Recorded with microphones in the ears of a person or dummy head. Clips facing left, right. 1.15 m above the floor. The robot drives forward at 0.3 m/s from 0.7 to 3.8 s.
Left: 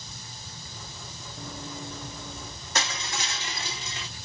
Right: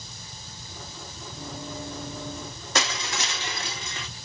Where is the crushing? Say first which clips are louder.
Right 3 dB; 55° right (ahead or behind), 1.1 m; by 4.1 s 45° right (ahead or behind), 1.2 m.